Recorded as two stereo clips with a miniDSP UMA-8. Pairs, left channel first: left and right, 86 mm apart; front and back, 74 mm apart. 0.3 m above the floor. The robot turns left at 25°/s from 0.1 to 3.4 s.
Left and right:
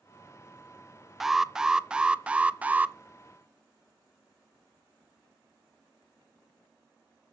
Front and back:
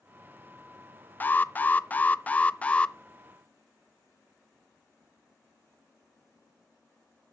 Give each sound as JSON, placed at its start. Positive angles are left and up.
{"t": 1.2, "sound": "an alarm", "azimuth_deg": -5, "distance_m": 0.6}